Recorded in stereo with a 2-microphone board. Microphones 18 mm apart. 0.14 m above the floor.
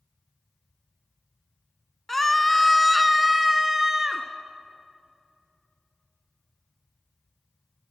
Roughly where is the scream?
Centre.